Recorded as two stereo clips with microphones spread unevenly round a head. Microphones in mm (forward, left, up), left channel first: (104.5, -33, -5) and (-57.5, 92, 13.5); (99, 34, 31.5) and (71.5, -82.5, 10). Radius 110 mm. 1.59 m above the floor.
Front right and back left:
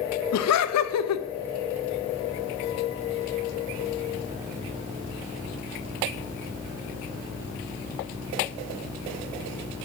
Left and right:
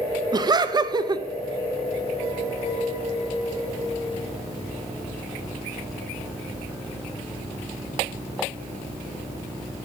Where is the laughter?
40° right, 0.5 m.